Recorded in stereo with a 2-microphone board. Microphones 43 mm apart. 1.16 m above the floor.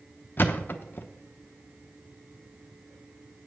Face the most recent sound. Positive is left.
turn(degrees=45)  # may be behind; listen again after turning